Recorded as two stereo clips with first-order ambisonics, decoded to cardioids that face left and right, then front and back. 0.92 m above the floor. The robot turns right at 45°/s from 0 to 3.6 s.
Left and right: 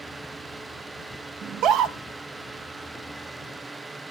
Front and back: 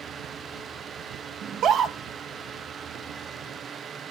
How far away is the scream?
About 1.0 m.